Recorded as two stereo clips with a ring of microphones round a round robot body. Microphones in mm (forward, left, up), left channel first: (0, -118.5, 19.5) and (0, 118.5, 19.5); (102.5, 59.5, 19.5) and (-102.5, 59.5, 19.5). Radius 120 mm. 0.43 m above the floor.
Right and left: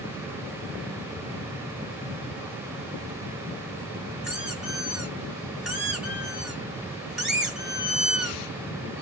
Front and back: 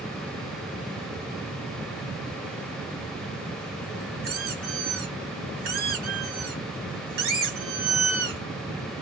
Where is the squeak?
175° left, 2.5 m.